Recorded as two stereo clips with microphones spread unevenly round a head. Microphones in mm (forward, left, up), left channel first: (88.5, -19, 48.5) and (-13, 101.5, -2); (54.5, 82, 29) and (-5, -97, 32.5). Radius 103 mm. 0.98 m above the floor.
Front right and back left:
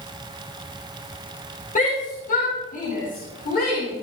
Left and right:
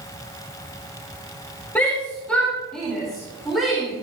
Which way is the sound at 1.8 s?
10° right.